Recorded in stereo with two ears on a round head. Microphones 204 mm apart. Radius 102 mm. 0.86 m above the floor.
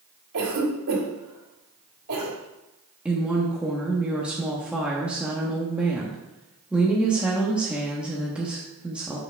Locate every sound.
0.3 s a cough: 75° right (ahead or behind), 2.5 m
3.0 s a woman speaking: 5° right (ahead or behind), 0.9 m